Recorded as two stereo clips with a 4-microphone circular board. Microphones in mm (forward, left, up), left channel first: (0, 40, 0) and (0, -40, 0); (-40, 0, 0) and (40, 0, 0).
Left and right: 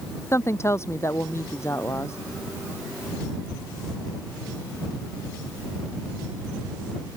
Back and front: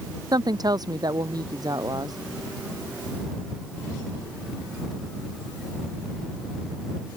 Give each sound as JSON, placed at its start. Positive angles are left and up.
{"t": 0.3, "sound": "a woman speaking", "azimuth_deg": 35}